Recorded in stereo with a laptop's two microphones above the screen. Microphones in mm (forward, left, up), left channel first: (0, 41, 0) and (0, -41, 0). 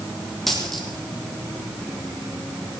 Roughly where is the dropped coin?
Centre.